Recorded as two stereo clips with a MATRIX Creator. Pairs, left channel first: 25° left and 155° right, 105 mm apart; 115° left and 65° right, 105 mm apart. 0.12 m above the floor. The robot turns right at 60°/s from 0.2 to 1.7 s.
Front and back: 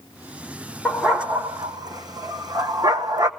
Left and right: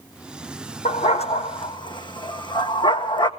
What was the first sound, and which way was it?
A dog barking, 100° left.